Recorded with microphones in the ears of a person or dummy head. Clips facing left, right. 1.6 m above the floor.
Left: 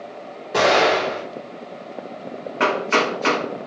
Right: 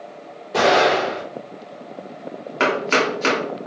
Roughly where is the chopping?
Right.